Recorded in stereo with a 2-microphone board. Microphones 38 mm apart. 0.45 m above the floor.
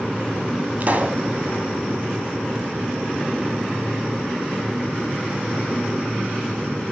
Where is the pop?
45° right (ahead or behind), 2.0 m.